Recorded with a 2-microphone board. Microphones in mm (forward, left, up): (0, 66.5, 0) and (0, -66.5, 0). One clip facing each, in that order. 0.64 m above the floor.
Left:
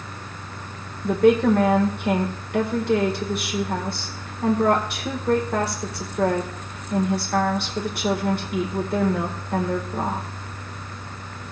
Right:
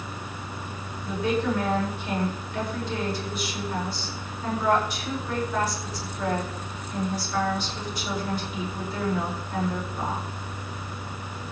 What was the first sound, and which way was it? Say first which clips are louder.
A woman speaking: left 9 dB; 65° left (ahead or behind).